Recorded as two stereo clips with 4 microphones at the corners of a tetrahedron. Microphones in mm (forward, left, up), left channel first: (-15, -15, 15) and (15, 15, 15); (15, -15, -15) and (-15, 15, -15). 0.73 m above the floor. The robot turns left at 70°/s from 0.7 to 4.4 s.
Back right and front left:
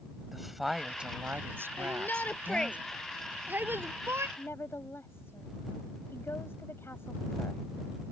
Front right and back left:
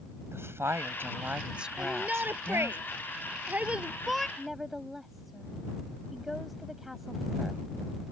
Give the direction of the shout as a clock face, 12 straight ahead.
5 o'clock.